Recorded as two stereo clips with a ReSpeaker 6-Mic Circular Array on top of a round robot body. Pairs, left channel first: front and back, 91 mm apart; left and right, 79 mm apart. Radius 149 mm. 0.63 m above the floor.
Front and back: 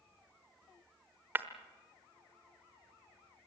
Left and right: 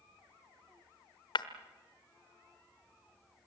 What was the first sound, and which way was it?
Breaking glass, 110° left.